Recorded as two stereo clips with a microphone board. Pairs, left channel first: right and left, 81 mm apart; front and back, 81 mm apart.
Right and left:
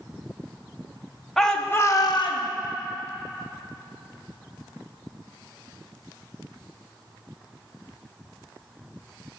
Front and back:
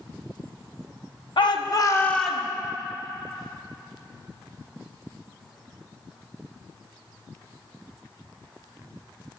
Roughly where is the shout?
Ahead.